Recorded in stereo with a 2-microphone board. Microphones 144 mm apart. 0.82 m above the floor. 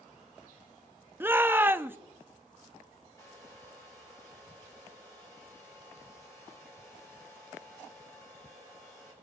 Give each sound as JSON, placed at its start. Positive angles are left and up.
{"t": 1.2, "sound": "a shout", "side_deg": -15, "distance_m": 0.7}
{"t": 3.2, "sound": "a hair dryer", "side_deg": 25, "distance_m": 8.0}